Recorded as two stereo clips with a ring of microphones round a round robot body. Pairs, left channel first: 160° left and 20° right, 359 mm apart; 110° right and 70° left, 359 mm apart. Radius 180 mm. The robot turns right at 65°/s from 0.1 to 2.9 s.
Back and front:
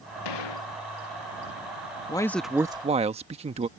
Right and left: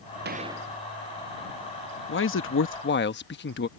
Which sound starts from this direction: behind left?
A gunshot, at 0.2 s.